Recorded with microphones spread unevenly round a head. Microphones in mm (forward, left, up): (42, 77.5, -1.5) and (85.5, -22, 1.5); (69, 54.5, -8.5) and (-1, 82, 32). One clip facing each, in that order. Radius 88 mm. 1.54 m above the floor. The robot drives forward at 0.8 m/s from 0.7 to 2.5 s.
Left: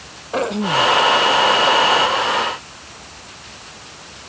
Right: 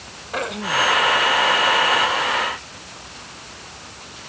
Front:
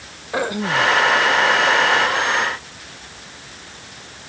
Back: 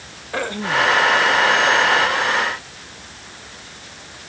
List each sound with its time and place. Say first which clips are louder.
0.3 s throat clearing: left 5 dB, front 1 dB; 55° left